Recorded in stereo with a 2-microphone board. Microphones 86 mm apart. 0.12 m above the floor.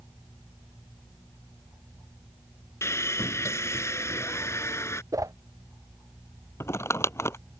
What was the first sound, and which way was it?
Sawing, 35° left (ahead or behind).